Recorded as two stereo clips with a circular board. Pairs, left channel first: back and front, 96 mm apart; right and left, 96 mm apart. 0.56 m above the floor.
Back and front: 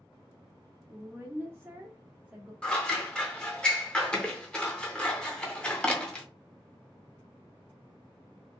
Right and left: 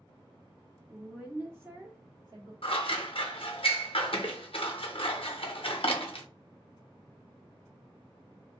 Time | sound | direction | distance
0.9 | a woman speaking | straight ahead | 0.9 m
2.6 | scissors | 100° right | 0.5 m